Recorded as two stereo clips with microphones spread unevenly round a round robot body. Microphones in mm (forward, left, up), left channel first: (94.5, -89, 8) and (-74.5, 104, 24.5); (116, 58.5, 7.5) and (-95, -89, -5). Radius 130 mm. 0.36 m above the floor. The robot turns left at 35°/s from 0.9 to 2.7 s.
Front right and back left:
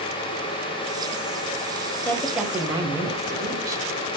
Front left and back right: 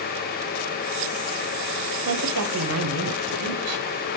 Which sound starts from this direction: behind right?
A woman speaking, at 2.0 s.